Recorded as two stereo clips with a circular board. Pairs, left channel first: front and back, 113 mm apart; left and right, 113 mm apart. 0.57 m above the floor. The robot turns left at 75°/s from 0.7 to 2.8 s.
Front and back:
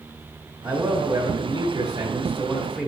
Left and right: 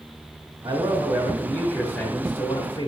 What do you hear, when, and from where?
0.6 s a man speaking: 115° right, 1.2 m; by 2.9 s 85° left, 1.2 m